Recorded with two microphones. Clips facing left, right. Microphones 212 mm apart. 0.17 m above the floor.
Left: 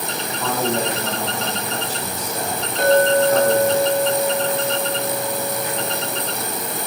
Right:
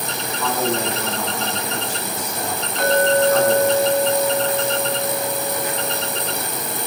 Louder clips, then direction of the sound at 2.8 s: Left 2 dB; 35° left (ahead or behind).